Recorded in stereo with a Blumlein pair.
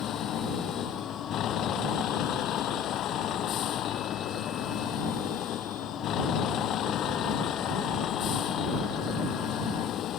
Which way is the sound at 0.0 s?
30° left.